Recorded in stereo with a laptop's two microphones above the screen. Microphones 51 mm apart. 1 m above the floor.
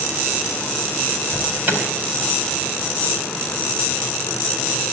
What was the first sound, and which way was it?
An alarm, 30° right (ahead or behind).